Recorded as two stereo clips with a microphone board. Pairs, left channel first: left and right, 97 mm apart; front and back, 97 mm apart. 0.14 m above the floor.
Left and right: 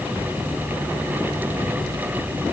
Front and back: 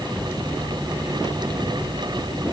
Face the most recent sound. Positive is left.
No sound to turn to.